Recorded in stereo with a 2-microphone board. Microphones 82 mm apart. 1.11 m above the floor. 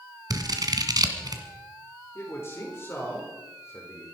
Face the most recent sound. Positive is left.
turn(degrees=30)  # may be behind; listen again after turning